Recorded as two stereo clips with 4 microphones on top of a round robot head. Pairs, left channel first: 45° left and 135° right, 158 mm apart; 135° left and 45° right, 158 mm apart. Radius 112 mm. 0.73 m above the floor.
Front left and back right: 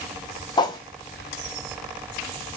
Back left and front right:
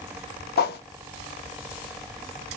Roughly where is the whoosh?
Left.